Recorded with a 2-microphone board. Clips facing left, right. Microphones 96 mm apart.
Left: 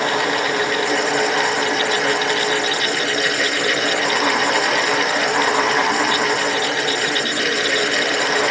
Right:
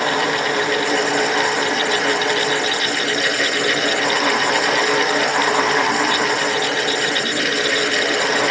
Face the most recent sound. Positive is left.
No sound to turn to.